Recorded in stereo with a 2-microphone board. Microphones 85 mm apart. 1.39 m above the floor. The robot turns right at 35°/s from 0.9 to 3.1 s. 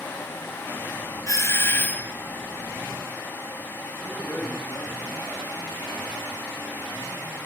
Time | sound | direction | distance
1.3 | a doorbell | 135° left | 1.2 m
4.0 | a man speaking | 25° left (ahead or behind) | 8.5 m